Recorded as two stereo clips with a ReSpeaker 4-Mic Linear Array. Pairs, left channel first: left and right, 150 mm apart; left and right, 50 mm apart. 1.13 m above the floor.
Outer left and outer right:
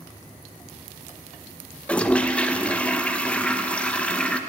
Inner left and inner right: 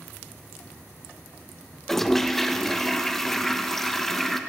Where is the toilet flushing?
10° left (ahead or behind), 0.8 m.